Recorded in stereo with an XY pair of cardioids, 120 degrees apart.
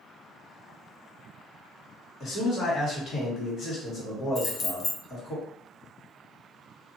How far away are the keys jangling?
About 0.5 m.